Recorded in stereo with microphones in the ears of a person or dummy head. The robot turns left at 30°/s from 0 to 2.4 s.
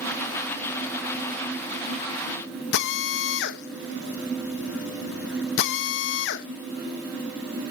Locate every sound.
2.7 s a drill: 65° left (ahead or behind), 1.2 m